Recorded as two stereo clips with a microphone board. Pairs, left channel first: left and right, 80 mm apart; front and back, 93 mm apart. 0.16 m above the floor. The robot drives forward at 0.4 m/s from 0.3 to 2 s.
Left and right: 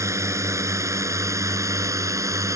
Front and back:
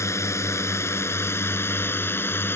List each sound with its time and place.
0.0 s a drone: 50° right; by 2.6 s 60° right